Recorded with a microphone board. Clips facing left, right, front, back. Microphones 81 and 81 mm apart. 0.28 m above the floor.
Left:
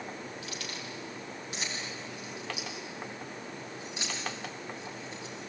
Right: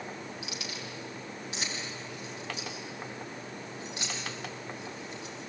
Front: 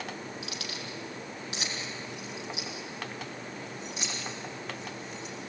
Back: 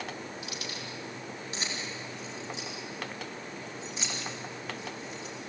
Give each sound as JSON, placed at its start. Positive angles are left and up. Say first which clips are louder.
{"t": 0.4, "sound": "keys jangling", "louder": "even, even", "azimuth_deg": -10, "distance_m": 5.5}